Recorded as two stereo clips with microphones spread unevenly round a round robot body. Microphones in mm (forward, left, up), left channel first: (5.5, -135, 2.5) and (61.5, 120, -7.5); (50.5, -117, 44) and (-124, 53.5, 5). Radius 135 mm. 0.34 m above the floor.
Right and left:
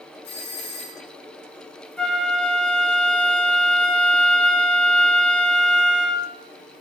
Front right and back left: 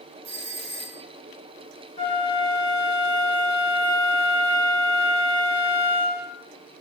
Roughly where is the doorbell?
Behind.